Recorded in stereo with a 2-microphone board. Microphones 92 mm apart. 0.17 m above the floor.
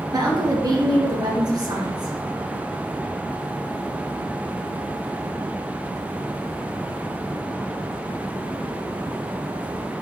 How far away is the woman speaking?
About 2.5 m.